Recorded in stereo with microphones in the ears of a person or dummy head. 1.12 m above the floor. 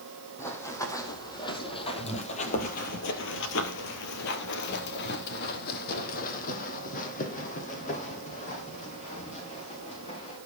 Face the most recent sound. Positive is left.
turn(degrees=35)  # may be behind; listen again after turning